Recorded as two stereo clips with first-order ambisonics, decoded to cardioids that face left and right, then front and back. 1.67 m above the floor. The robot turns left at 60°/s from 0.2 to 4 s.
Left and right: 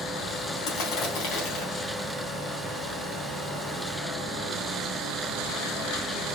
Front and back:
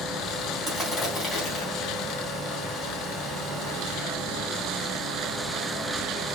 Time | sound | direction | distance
0.7 | crushing | 100° left | 3.5 m